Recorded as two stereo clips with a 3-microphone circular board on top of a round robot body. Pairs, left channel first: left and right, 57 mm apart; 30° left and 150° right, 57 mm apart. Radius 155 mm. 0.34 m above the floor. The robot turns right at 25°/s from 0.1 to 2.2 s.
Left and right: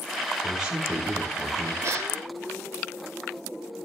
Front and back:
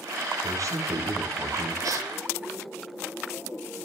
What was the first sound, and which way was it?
A man speaking, 175° right.